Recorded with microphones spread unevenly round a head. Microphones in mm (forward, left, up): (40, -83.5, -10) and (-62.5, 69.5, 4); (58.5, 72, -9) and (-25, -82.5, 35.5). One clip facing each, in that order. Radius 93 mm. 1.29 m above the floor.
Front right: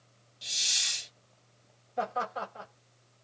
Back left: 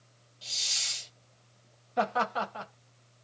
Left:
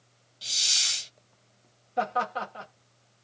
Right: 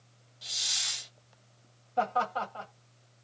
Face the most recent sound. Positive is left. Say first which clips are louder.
# back left 4 dB, left 1 dB
turn(degrees=125)